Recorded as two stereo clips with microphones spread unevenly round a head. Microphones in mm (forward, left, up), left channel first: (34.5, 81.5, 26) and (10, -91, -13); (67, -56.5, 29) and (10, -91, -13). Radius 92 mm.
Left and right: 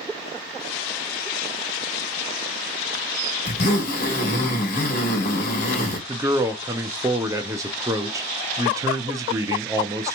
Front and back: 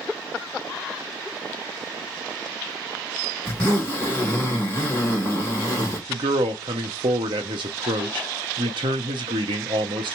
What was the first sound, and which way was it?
A zipper, 80° left.